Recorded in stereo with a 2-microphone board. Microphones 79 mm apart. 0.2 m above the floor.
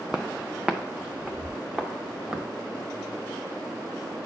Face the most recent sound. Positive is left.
turn(degrees=-15)  # may be behind; listen again after turning